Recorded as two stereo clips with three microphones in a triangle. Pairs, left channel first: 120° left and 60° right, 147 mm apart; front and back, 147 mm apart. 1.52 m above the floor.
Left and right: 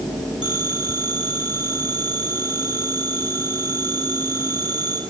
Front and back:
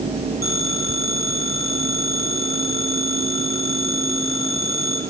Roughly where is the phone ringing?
Ahead left.